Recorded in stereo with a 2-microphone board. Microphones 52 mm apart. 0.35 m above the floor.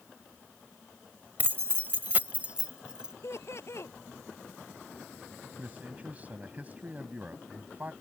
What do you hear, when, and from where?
1.4 s keys jangling: 40° right (ahead or behind); by 3.1 s 15° right (ahead or behind)
3.2 s laughter: 60° left (ahead or behind)
5.6 s a man speaking: 30° right (ahead or behind)